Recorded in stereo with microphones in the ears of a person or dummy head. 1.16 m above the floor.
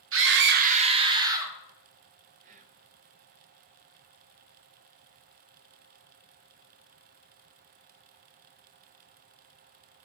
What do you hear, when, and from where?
0.1 s a scream: 50° right (ahead or behind), 0.5 m; by 1.5 s 20° right (ahead or behind), 1.2 m
2.4 s whispering: 40° right (ahead or behind), 0.7 m